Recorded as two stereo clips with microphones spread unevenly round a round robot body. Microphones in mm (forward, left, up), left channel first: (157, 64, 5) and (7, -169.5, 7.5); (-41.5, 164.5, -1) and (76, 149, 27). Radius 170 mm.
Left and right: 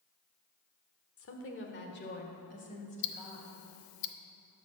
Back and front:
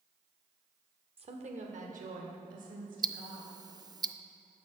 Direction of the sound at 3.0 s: 60° left.